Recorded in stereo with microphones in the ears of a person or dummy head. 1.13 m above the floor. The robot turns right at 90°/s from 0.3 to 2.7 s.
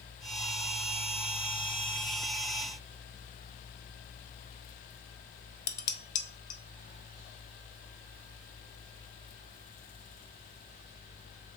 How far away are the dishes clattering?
About 0.6 m.